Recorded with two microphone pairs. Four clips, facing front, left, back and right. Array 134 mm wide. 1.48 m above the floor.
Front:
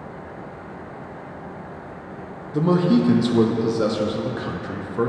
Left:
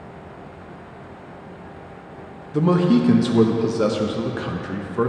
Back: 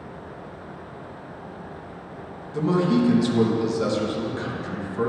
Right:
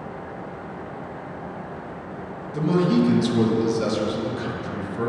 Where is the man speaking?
55° left, 0.8 m.